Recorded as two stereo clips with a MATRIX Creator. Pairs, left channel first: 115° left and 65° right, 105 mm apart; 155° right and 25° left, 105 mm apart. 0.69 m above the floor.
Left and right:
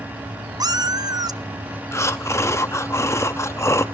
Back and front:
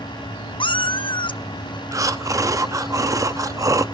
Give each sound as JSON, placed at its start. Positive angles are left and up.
{"t": 0.6, "sound": "a cat meowing", "azimuth_deg": -120, "distance_m": 0.5}
{"t": 1.9, "sound": "breathing", "azimuth_deg": 65, "distance_m": 0.7}